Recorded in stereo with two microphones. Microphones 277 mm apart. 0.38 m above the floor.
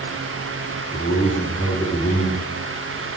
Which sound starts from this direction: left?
A man speaking, at 0.9 s.